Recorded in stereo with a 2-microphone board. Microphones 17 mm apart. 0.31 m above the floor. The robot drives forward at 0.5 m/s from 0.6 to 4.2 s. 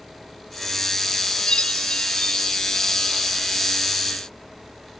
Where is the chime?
85° left.